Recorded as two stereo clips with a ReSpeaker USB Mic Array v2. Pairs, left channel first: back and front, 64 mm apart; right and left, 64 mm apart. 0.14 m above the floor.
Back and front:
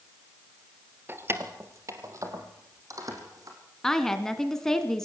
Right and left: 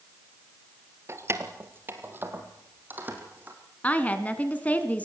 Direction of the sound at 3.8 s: 110° right.